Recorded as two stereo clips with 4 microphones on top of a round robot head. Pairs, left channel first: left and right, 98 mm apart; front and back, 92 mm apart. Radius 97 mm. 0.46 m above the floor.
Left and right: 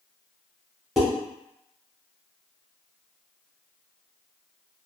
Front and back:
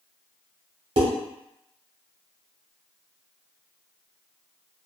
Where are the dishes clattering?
175° right, 1.3 m.